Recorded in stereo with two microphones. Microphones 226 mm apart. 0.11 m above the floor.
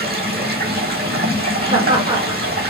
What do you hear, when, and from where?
0.0 s running water: 45° right (ahead or behind), 1.5 m
1.7 s laughter: 20° right (ahead or behind), 1.5 m